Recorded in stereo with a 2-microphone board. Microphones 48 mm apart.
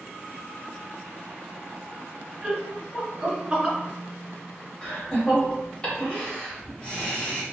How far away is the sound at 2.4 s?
About 1.7 m.